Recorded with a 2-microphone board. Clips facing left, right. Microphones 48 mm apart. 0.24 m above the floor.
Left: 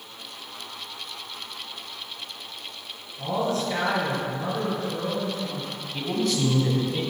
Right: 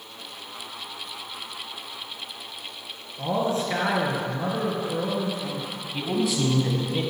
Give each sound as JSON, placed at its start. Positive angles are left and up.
{"t": 3.2, "sound": "a man speaking", "side_deg": -25, "distance_m": 3.0}
{"t": 5.9, "sound": "a man speaking", "side_deg": -10, "distance_m": 1.5}